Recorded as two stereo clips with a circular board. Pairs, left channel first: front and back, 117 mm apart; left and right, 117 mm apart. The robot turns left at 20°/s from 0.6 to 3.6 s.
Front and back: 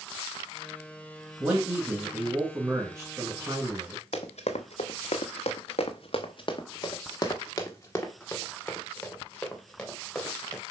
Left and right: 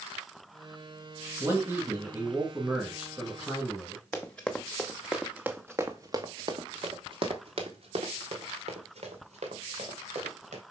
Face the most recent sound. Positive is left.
turn(degrees=-85)